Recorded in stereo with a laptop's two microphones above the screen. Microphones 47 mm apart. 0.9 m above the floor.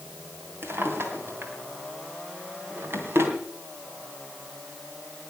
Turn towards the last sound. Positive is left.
turn(degrees=-60)  # may be behind; listen again after turning